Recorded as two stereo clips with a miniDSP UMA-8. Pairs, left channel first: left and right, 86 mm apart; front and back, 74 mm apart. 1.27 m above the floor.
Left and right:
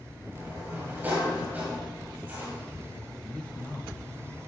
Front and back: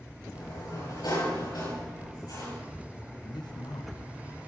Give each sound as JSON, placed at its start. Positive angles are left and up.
{"t": 0.3, "sound": "a sliding door", "azimuth_deg": -20, "distance_m": 7.5}
{"t": 3.2, "sound": "a man speaking", "azimuth_deg": 15, "distance_m": 1.3}